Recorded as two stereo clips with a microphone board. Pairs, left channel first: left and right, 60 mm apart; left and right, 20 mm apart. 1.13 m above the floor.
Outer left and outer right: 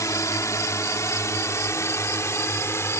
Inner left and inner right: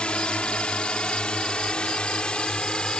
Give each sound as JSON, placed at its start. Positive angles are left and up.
{"t": 0.0, "sound": "a drone", "side_deg": 65}